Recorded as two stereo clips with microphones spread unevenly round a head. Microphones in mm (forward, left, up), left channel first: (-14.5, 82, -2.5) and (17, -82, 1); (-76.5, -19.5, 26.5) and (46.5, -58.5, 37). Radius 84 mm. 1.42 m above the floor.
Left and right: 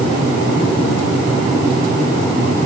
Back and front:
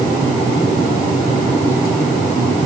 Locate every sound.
Only background noise.